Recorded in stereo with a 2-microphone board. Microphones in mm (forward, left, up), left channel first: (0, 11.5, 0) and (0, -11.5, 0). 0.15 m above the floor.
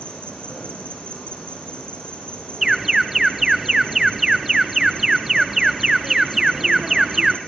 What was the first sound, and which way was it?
An insect, 50° left (ahead or behind).